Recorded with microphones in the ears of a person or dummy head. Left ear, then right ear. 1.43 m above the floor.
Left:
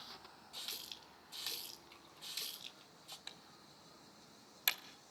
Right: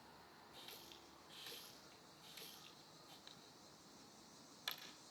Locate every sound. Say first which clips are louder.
0.5 s a running tap: left 12 dB; 35° left (ahead or behind), 2 m
3.3 s typing on a keyboard: left 6 dB; 40° left (ahead or behind), 1.7 m